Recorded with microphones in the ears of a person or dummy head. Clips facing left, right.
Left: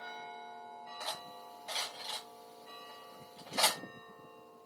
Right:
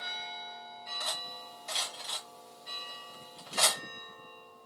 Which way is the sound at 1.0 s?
Centre (ahead or behind).